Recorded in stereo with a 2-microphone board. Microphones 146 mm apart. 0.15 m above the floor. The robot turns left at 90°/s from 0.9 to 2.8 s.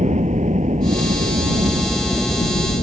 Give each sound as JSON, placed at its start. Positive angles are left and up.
{"t": 0.0, "sound": "a helicopter", "side_deg": -50}